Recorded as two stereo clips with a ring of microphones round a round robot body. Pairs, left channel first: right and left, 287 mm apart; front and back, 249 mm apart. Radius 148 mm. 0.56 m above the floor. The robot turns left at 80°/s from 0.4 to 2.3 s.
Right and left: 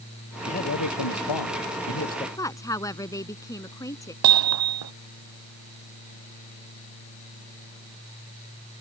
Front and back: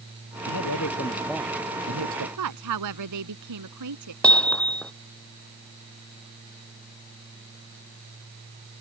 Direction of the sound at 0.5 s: 20° right.